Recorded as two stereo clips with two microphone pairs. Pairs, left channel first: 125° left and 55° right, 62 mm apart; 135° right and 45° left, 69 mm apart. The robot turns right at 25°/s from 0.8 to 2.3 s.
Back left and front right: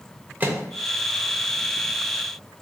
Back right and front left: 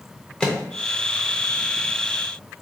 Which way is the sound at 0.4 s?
75° right.